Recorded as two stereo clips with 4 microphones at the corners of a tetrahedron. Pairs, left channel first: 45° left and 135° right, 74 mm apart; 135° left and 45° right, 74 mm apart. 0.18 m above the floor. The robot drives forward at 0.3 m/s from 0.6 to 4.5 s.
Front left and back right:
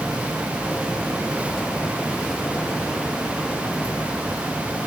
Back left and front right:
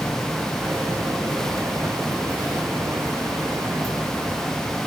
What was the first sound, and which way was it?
Only background noise.